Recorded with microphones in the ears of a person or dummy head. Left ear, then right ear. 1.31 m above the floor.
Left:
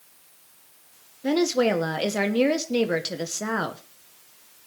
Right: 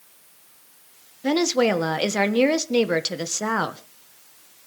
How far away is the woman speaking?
About 1.0 m.